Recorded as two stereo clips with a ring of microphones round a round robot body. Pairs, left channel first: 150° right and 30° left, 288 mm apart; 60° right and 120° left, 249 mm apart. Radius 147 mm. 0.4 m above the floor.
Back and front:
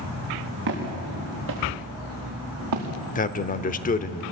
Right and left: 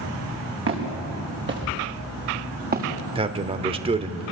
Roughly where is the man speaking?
Behind.